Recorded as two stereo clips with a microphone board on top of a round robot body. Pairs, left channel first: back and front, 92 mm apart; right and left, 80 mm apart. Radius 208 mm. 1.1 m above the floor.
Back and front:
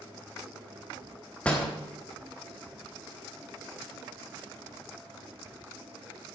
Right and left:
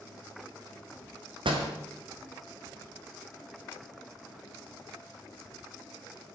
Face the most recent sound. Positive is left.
turn(degrees=100)